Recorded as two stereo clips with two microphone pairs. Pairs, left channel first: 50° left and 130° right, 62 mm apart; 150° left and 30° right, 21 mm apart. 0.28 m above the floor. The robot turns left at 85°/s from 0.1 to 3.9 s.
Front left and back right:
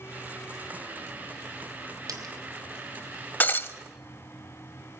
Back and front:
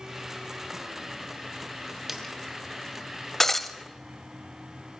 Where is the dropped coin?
110° right, 1.4 m; by 2.3 s 135° right, 1.4 m.